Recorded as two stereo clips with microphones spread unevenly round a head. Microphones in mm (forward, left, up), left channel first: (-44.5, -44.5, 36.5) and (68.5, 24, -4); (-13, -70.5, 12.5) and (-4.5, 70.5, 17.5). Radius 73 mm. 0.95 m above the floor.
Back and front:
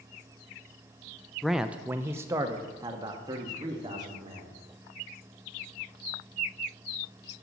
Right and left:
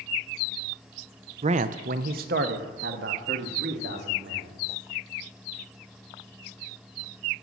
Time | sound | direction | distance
1.4 | a man speaking | 105° left | 0.5 m